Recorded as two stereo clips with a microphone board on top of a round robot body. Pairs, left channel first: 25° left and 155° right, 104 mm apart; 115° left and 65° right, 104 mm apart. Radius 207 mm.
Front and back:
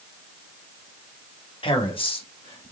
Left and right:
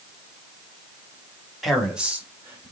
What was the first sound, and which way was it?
A man speaking, 25° left.